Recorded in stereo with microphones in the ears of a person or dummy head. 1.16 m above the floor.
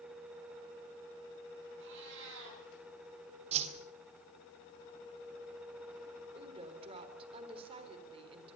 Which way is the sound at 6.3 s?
30° right (ahead or behind).